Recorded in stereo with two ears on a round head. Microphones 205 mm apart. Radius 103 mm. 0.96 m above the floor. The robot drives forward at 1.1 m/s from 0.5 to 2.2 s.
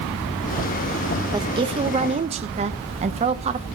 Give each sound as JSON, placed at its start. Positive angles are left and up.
{"t": 1.3, "sound": "a woman speaking", "side_deg": -20, "distance_m": 1.2}